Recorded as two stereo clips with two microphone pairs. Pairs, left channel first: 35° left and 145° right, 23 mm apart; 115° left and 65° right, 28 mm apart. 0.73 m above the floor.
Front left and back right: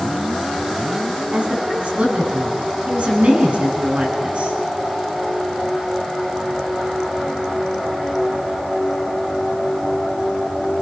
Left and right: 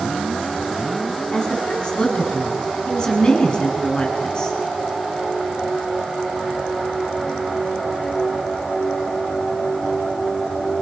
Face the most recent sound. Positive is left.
turn(degrees=175)